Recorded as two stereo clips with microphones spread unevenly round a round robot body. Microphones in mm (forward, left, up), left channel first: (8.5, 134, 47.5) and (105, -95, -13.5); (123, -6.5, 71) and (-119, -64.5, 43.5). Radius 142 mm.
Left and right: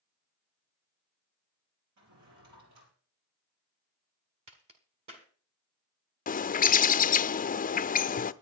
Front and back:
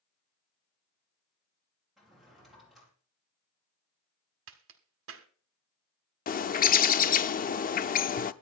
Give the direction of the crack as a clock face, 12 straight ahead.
5 o'clock.